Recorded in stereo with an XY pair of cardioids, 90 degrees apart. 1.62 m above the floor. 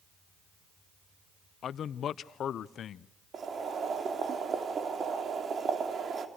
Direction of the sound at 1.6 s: 70° left.